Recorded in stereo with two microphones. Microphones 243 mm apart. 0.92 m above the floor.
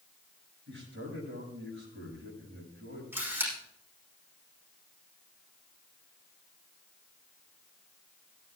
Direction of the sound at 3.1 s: 10° right (ahead or behind).